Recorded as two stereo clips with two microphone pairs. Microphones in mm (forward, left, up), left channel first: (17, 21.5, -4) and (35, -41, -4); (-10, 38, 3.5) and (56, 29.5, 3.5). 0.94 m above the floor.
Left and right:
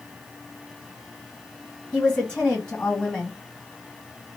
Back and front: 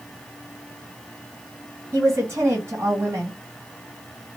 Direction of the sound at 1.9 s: 30° left.